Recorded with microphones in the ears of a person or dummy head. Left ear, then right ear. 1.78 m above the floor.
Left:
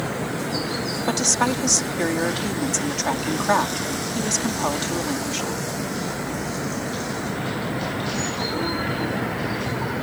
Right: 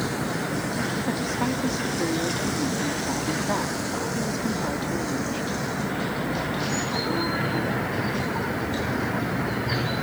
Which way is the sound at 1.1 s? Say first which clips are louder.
Left 6 dB; 50° left (ahead or behind).